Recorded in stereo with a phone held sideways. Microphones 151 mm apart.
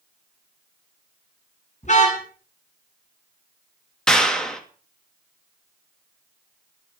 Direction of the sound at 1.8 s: 50° left (ahead or behind).